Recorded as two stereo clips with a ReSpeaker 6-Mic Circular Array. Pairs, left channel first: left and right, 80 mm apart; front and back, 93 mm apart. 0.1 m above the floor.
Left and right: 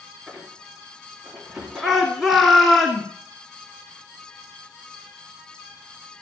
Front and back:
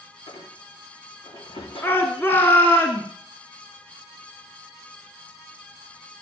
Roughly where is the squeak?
Ahead.